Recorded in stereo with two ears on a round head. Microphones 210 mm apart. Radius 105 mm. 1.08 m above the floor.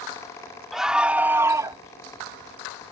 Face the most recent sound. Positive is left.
turn(degrees=-15)  # may be behind; listen again after turning